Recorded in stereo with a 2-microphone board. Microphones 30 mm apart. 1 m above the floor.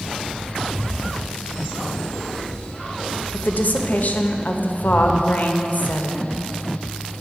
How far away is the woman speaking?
About 0.7 m.